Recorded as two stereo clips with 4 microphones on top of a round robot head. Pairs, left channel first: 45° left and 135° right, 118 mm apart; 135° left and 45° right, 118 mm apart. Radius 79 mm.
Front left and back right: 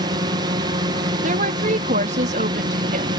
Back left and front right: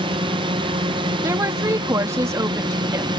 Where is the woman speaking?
115° right.